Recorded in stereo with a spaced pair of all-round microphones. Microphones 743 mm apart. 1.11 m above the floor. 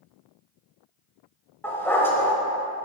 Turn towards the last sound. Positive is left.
turn(degrees=5)  # may be behind; listen again after turning